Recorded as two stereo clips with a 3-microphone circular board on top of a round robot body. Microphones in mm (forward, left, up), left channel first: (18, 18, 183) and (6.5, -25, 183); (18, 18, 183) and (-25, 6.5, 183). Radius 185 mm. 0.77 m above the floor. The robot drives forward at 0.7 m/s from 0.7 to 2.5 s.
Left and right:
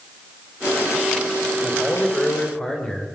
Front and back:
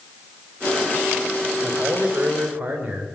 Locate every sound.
1.6 s a man speaking: 140° left, 5 m; by 3.1 s 145° left, 5 m